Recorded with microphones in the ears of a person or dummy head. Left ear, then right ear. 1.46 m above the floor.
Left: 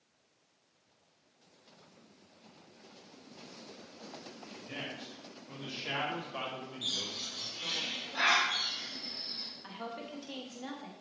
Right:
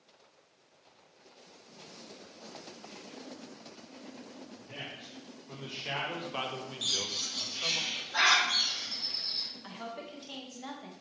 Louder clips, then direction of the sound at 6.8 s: Right 4 dB; 65° right (ahead or behind).